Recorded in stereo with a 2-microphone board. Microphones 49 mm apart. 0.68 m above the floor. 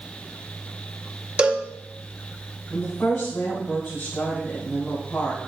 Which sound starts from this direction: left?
A woman speaking, at 2.7 s.